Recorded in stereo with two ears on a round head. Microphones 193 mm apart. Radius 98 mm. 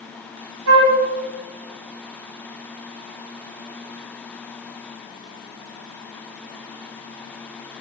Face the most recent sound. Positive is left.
turn(degrees=-75)  # may be behind; listen again after turning